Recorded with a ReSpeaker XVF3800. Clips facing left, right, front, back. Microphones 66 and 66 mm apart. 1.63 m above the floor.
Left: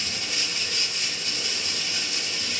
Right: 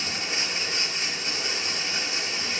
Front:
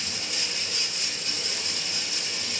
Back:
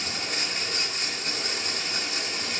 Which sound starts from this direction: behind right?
Running water, at 0.0 s.